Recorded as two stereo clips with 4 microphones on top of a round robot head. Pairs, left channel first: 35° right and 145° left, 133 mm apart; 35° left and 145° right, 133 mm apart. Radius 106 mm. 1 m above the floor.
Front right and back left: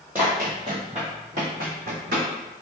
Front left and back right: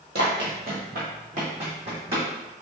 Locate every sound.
0.1 s running footsteps: 135° right, 1.5 m; by 2.3 s 165° left, 2.5 m